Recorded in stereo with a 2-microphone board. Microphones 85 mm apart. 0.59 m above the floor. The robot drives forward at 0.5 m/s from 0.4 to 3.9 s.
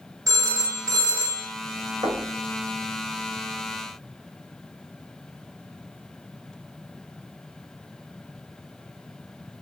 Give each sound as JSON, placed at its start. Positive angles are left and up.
{"t": 0.3, "sound": "a phone ringing", "side_deg": -40, "distance_m": 0.8}
{"t": 2.0, "sound": "knocking", "side_deg": -50, "distance_m": 1.4}